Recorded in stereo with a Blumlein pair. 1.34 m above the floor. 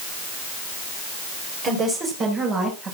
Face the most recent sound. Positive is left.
turn(degrees=-25)